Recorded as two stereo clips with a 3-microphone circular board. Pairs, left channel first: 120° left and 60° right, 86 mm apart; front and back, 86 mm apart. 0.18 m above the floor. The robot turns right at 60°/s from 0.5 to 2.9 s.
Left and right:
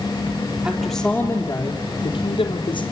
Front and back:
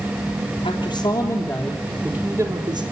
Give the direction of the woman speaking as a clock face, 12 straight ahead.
12 o'clock.